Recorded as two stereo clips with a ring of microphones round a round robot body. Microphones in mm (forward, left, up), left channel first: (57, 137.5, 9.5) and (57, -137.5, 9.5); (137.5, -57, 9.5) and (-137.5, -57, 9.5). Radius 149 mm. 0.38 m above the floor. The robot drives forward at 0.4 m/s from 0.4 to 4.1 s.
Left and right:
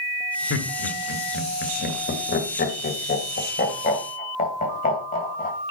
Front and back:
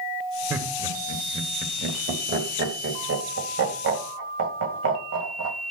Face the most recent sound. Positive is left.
turn(degrees=150)